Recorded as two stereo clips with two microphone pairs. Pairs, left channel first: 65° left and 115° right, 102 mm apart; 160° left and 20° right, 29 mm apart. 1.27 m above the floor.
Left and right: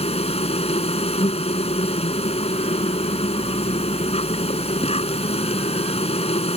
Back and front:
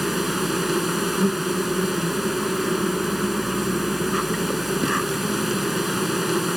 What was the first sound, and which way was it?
An insect, 65° left.